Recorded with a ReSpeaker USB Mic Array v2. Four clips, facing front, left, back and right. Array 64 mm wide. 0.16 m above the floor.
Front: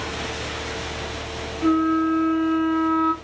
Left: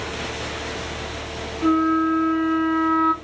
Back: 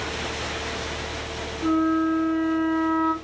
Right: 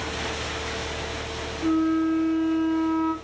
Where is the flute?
70° left, 1.0 m.